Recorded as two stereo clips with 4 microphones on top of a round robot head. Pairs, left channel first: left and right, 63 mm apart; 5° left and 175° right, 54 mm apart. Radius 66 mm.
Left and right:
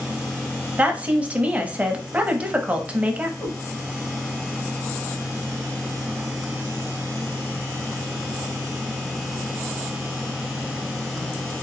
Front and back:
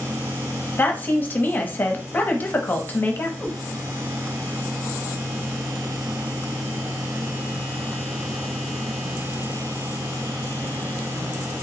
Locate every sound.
0.8 s a woman speaking: 30° right, 0.8 m
3.4 s a cat meowing: 70° left, 2 m